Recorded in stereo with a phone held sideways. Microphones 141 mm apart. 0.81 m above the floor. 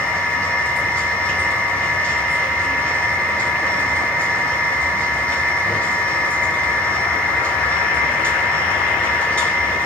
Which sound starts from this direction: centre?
A machine running, at 0.0 s.